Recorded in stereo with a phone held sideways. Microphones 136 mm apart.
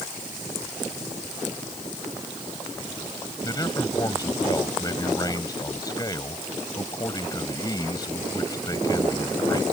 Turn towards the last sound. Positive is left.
turn(degrees=25)  # may be behind; listen again after turning